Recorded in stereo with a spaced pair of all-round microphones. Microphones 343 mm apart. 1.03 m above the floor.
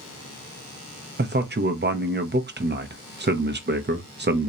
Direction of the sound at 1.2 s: 30° right (ahead or behind).